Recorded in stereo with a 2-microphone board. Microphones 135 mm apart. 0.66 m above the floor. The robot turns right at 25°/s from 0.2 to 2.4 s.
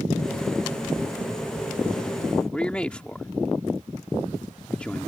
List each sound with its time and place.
2.5 s a man speaking: 10° left (ahead or behind)